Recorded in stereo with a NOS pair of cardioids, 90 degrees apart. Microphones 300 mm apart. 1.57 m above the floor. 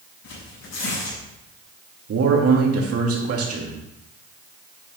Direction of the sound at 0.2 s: 60° left.